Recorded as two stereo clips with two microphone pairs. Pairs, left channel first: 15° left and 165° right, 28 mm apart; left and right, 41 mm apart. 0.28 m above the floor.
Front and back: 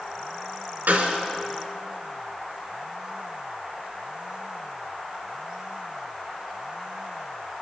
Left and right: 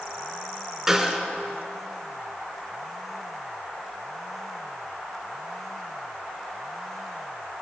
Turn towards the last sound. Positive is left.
turn(degrees=-170)